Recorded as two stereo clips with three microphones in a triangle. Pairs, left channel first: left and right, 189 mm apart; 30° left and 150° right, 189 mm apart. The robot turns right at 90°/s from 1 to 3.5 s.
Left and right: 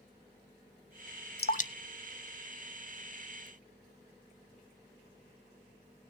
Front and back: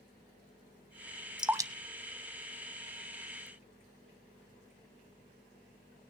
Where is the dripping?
120° left, 0.6 m; by 3.5 s 50° right, 0.6 m.